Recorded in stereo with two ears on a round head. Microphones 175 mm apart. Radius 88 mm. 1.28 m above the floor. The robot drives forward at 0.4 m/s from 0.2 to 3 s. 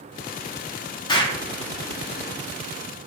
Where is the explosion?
25° left (ahead or behind), 0.9 m.